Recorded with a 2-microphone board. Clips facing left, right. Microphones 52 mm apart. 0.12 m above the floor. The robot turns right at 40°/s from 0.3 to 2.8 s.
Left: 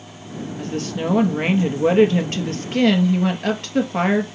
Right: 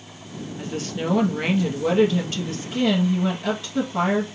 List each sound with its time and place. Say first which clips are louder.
0.6 s a woman speaking: left 3 dB; 15° right, 2 m; by 4.3 s 75° left, 2 m